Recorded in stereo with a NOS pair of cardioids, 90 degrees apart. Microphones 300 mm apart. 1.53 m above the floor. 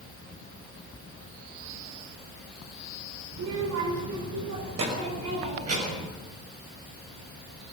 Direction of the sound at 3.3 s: 70° right.